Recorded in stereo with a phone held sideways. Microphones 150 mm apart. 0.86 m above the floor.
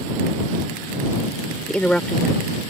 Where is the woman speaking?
10° left (ahead or behind).